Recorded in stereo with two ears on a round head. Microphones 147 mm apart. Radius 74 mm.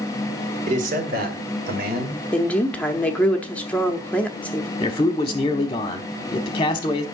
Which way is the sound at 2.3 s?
10° left (ahead or behind).